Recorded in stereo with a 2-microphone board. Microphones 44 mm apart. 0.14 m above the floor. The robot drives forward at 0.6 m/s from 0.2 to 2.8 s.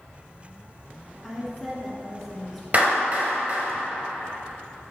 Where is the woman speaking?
5° left (ahead or behind), 1.2 m.